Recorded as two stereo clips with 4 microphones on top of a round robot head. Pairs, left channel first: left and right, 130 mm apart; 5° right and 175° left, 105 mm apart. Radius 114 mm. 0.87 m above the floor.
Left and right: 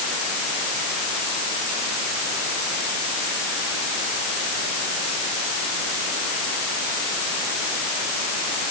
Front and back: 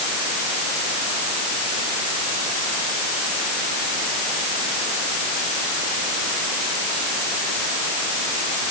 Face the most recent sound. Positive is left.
No sound to turn to.